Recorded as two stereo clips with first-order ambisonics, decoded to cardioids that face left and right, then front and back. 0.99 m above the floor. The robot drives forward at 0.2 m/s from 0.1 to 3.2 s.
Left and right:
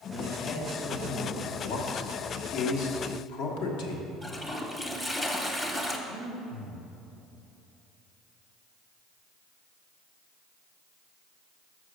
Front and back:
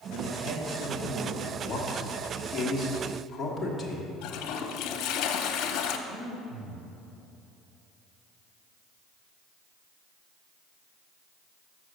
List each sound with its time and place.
0.1 s a man speaking: 165° left, 1.3 m; by 1.5 s 170° left, 1.5 m
1.6 s a man speaking: 70° left, 1.5 m; by 4.1 s 80° left, 1.4 m
4.2 s a toilet flushing: 10° left, 0.8 m
6.1 s breathing: 140° left, 1.6 m